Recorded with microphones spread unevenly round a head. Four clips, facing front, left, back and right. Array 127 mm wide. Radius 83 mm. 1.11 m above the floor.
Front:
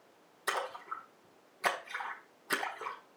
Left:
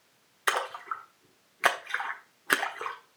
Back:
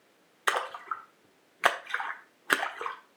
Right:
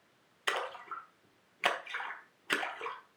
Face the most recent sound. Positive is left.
turn(degrees=155)